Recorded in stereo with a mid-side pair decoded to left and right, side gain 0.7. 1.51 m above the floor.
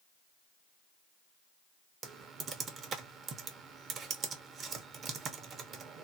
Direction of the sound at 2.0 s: 35° right.